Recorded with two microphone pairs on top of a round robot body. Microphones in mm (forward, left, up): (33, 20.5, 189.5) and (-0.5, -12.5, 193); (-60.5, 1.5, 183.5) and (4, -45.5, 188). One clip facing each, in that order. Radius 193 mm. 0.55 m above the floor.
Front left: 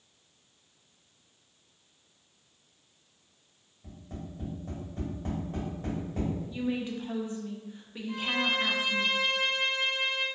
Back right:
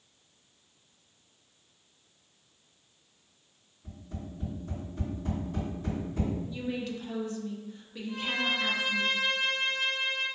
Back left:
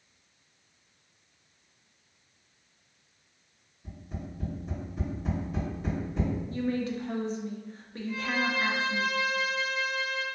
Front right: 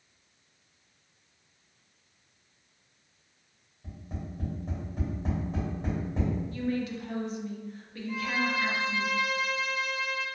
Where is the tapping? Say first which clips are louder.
Even, even; 20° left, 1.9 m.